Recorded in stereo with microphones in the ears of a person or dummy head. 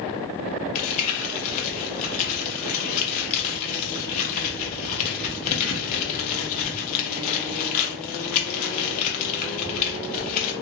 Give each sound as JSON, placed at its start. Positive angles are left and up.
{"t": 0.8, "sound": "crumpling", "side_deg": 40, "distance_m": 0.7}